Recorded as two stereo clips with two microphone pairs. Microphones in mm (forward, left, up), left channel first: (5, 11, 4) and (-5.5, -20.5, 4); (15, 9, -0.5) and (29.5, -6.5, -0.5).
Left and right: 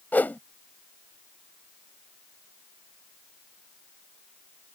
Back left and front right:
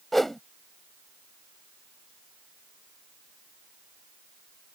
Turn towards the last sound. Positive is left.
turn(degrees=55)